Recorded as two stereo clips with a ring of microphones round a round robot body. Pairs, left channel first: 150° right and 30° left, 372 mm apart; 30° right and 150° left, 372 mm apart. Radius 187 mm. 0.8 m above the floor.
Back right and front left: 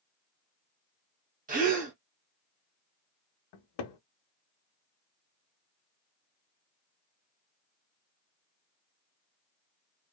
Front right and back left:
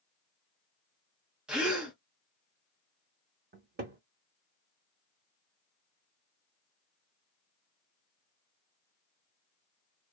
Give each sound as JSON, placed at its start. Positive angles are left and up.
{"t": 1.5, "sound": "a gasp", "azimuth_deg": 65, "distance_m": 0.9}
{"t": 3.5, "sound": "a cupboard door", "azimuth_deg": -145, "distance_m": 0.6}